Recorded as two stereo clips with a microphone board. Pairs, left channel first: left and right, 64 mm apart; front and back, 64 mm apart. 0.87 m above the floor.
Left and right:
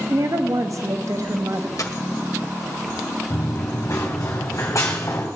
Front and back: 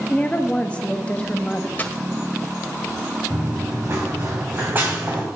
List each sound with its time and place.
0.1 s a woman speaking: 70° right, 1.4 m
1.8 s a dropped coin: 60° left, 1.4 m
3.3 s running footsteps: 130° left, 4 m; by 5.3 s 120° left, 3 m